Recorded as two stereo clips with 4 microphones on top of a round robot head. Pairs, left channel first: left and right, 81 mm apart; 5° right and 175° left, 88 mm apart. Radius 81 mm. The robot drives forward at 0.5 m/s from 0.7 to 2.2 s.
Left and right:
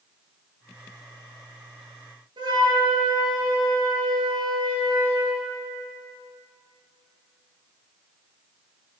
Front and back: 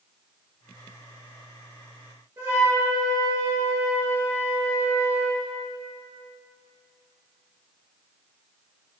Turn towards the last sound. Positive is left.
turn(degrees=-120)